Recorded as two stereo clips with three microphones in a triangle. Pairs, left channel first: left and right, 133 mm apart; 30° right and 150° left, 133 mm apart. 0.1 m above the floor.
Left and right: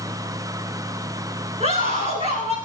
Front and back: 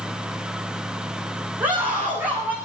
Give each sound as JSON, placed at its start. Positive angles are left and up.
{"t": 1.6, "sound": "a scream", "azimuth_deg": -130, "distance_m": 8.5}